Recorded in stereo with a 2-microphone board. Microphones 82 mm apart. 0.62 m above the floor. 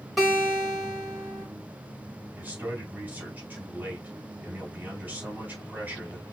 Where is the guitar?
Centre (ahead or behind), 3.5 m.